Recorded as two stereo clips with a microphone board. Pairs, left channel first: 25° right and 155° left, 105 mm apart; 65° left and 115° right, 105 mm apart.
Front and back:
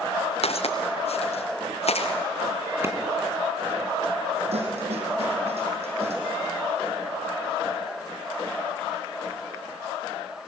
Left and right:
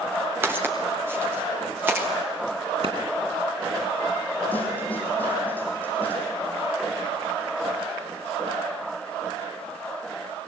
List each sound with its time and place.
0.4 s footsteps: 45° right, 5 m; by 2.1 s 40° right, 6 m
2.8 s a clap: 135° right, 3 m
4.5 s a snare drum: 140° left, 5.5 m